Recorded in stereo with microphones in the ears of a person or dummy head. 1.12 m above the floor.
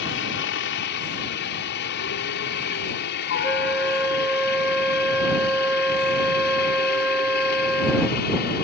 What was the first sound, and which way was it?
A helicopter, 55° left (ahead or behind).